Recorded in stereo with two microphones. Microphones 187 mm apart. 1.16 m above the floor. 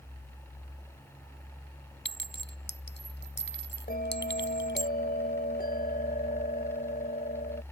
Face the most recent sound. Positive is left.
turn(degrees=55)  # may be behind; listen again after turning